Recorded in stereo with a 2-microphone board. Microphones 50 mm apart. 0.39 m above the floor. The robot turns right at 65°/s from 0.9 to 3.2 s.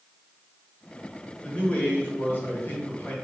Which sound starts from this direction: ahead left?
A man speaking, at 1.4 s.